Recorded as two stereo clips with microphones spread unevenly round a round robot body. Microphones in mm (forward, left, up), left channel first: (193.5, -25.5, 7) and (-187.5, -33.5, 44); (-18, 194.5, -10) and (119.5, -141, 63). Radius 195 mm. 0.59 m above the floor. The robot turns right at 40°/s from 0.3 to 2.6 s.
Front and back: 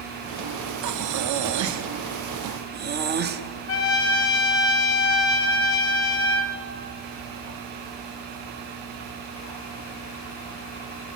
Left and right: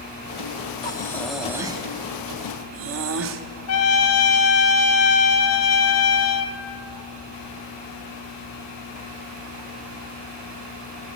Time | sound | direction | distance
0.8 | breathing | 170° left | 1.0 m
3.7 | a trumpet | 60° left | 1.1 m